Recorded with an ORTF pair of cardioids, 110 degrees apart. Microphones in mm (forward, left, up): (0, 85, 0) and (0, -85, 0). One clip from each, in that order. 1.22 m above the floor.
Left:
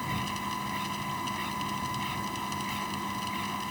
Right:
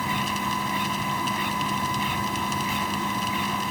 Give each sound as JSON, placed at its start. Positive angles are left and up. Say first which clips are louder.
{"t": 0.0, "sound": "a machine running", "louder": "right 7 dB", "azimuth_deg": -45}